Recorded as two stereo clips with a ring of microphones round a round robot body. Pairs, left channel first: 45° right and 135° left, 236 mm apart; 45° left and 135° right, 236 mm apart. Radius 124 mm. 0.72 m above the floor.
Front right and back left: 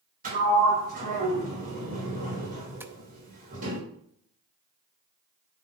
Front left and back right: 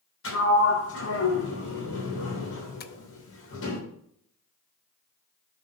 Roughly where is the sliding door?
Left.